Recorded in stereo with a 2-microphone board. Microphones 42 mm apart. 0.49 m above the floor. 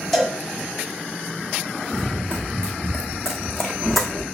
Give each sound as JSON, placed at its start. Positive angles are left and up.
{"t": 0.1, "sound": "a cowbell", "side_deg": 5, "distance_m": 0.9}
{"t": 1.9, "sound": "running footsteps", "side_deg": -20, "distance_m": 2.0}